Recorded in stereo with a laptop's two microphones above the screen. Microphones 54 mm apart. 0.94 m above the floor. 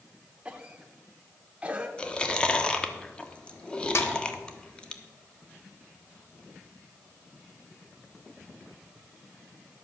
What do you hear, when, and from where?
0.5 s a cough: 20° right (ahead or behind), 0.8 m
2.0 s chewing: 20° left (ahead or behind), 1.1 m
4.0 s a snare drum: 55° left (ahead or behind), 1.2 m